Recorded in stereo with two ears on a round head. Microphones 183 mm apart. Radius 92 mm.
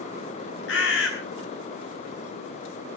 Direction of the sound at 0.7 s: 60° left (ahead or behind).